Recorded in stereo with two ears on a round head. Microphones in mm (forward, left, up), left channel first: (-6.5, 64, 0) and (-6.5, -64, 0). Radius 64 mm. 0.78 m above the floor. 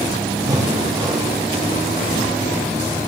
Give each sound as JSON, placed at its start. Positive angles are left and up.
{"t": 0.5, "sound": "breathing", "side_deg": -25, "distance_m": 0.8}